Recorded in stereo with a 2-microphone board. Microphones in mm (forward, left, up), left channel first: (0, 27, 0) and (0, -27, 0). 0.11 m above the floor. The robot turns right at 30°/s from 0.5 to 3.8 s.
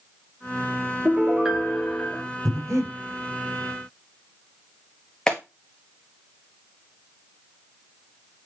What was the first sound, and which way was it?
A piano, 30° right.